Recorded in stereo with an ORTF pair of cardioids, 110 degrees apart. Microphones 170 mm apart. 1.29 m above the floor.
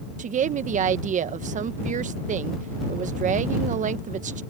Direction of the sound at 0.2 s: 50° right.